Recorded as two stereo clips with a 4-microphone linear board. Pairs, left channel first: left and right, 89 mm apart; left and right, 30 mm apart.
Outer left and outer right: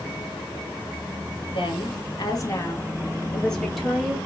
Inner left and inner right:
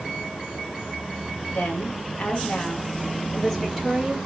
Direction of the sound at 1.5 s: 65° left (ahead or behind).